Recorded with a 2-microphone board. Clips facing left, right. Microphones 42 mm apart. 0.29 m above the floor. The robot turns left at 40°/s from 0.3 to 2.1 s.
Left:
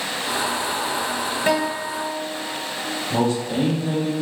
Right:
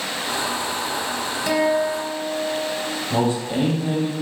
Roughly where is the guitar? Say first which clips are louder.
Right 4 dB; left.